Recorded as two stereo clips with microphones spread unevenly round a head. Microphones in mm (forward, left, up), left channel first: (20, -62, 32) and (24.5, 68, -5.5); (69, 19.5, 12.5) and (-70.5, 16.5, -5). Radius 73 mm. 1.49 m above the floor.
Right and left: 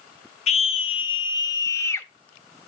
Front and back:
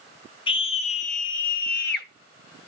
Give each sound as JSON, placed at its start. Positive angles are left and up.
{"t": 0.5, "sound": "a scream", "azimuth_deg": -55, "distance_m": 1.2}